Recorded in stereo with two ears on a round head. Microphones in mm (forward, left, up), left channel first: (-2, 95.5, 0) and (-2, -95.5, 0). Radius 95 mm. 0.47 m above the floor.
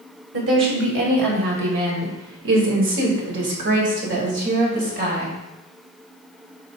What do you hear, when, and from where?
0.3 s a woman speaking: 55° right (ahead or behind), 2.5 m; by 5.3 s 40° right (ahead or behind), 2.5 m